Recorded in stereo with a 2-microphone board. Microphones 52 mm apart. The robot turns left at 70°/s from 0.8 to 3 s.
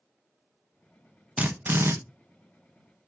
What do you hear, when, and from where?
1.4 s a drill: 25° right, 1.1 m; by 1.9 s 65° right, 1.1 m